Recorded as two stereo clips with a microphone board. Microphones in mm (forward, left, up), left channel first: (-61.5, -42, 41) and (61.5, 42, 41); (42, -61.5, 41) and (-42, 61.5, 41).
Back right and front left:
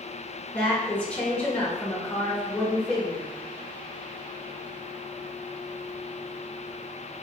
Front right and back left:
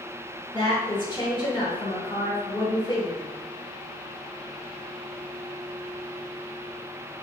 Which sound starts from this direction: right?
A woman speaking, at 0.5 s.